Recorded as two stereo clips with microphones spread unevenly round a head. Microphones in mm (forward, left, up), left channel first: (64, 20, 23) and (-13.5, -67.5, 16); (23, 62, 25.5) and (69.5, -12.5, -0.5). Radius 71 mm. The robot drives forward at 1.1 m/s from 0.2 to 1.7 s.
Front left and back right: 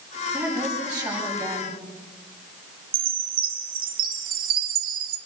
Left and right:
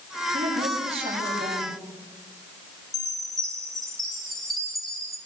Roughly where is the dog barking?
No dog barking in this recording.